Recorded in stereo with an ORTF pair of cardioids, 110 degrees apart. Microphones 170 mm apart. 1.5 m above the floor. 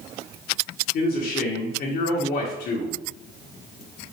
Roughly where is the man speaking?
Ahead left.